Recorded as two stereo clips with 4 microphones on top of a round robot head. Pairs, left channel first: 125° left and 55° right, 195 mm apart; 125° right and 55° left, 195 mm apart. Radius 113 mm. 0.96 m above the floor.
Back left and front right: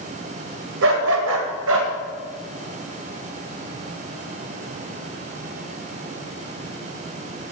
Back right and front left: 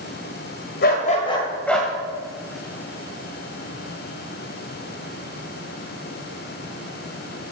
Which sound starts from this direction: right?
A dog barking, at 0.8 s.